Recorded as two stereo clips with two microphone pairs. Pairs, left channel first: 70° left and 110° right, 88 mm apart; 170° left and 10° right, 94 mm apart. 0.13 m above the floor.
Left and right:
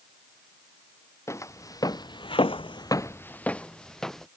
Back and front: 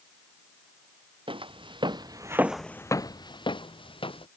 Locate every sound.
1.3 s footsteps: 10° left; by 4.3 s 155° left